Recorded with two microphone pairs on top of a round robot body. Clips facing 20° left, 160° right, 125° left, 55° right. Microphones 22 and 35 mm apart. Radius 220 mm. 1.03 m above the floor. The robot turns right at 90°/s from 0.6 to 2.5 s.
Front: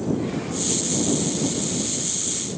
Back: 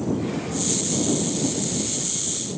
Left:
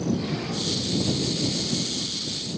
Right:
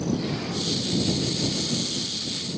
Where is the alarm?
I don't hear an alarm.